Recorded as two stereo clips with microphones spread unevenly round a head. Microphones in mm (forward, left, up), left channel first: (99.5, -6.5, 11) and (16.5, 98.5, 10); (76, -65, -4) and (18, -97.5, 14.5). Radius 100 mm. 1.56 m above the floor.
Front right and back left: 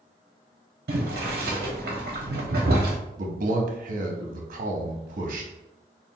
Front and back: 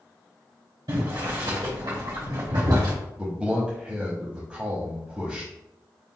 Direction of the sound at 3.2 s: 130° left.